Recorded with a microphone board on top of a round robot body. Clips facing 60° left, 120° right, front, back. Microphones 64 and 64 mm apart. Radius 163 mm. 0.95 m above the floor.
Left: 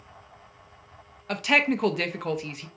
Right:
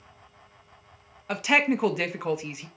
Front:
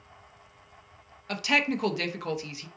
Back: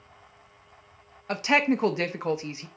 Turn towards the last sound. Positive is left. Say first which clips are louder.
# even, back 4 dB
turn(degrees=165)